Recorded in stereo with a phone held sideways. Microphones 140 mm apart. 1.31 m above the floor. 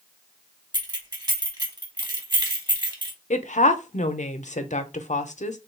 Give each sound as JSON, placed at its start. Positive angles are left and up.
{"t": 0.7, "sound": "keys jangling", "side_deg": -30, "distance_m": 1.2}
{"t": 3.3, "sound": "a woman speaking", "side_deg": 60, "distance_m": 0.6}